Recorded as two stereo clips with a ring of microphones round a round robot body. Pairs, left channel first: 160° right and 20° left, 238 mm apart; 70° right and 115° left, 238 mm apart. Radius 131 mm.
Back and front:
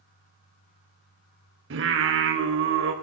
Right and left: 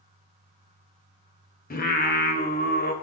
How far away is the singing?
About 3.5 m.